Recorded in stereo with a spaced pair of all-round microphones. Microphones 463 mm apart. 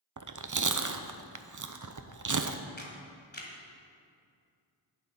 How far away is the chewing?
About 0.5 m.